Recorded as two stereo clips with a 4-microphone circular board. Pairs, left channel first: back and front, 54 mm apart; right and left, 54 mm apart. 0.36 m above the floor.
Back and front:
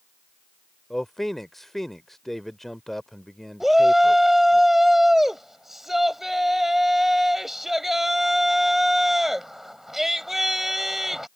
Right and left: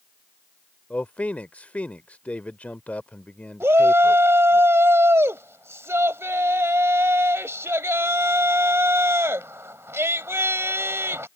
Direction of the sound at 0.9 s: 100° right.